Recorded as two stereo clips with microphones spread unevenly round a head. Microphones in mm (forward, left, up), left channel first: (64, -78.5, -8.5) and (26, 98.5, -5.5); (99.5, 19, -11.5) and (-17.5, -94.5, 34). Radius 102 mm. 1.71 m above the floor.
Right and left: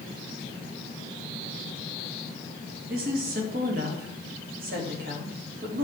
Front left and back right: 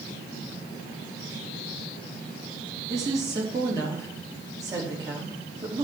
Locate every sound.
2.9 s a woman speaking: 150° left, 3.5 m